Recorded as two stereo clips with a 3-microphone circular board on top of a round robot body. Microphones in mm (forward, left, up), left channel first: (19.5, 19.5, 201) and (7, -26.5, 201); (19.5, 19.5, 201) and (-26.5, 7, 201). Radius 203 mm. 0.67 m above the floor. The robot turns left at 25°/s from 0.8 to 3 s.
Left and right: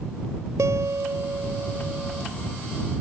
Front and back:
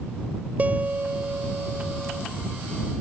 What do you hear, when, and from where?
0.6 s a guitar: 110° right; by 2.2 s 145° right